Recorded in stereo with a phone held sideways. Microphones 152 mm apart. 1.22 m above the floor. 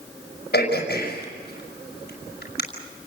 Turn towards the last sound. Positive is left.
turn(degrees=85)